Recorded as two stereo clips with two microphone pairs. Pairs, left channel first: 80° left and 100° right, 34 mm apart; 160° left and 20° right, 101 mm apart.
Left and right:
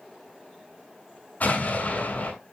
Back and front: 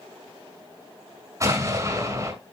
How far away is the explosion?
About 6.5 m.